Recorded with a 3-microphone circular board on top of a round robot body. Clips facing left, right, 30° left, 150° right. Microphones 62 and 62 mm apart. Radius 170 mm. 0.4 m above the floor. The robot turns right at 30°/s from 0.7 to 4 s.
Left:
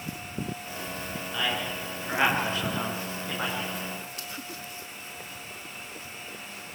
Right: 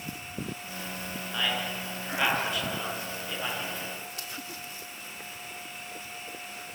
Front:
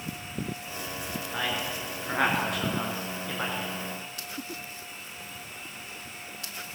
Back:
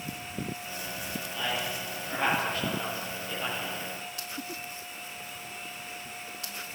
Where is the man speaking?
5° right, 8 m; by 3.7 s 65° left, 8 m.